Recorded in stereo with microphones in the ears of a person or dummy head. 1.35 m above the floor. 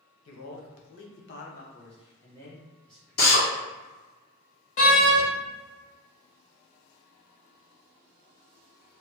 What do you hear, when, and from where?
0.2 s a man speaking: 85° left, 0.9 m; by 3.4 s 5° right (ahead or behind), 1.4 m
3.2 s a drill: 45° left (ahead or behind), 0.7 m
4.8 s a door slam: 35° left (ahead or behind), 0.8 m